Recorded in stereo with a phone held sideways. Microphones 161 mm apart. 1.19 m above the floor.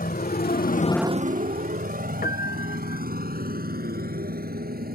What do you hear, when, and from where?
0.0 s a motorcycle: 70° left (ahead or behind); by 5.0 s 70° right (ahead or behind)
2.2 s a piano: 65° left (ahead or behind)